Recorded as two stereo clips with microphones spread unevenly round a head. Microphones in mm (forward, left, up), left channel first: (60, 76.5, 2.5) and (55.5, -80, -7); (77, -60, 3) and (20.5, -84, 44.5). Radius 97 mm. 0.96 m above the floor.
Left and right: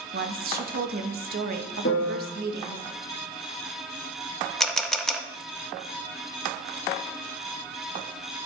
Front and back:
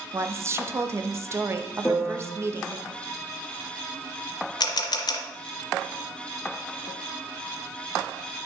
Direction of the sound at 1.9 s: 110° left.